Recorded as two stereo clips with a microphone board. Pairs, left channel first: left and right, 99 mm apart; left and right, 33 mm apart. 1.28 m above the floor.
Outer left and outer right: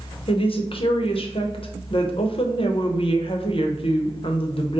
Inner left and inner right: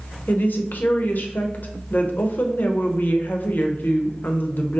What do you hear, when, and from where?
0.3 s a woman speaking: 70° left (ahead or behind), 0.7 m